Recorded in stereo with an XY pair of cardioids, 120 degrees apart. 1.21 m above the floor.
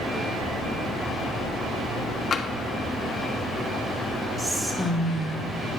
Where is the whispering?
15° right, 2 m.